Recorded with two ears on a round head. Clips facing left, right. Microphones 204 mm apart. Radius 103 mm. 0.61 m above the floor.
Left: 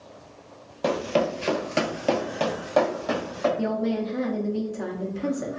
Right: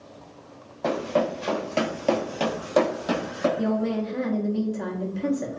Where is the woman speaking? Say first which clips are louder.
Right 1 dB; centre (ahead or behind), 0.6 m.